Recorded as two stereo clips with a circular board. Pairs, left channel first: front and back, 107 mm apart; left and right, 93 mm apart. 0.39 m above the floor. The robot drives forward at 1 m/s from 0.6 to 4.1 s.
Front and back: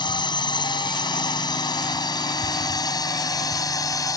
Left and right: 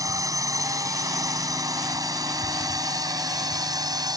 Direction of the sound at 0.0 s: 40° right.